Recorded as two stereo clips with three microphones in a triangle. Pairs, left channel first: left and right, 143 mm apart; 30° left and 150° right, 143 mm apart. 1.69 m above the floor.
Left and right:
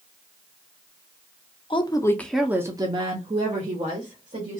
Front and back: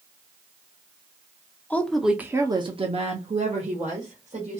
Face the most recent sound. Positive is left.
turn(degrees=-115)